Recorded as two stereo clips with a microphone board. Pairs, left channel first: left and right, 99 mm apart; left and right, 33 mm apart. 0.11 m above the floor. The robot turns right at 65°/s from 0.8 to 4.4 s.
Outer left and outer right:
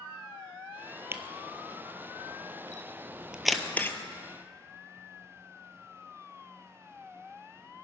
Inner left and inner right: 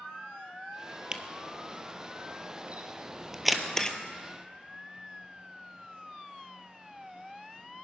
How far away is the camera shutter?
About 1.1 m.